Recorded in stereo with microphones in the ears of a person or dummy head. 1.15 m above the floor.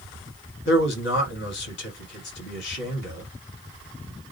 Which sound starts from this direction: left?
A man speaking, at 0.7 s.